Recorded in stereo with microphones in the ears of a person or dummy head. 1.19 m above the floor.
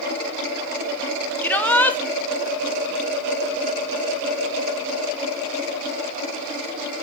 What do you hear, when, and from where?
1.4 s a shout: 10° left (ahead or behind), 1.0 m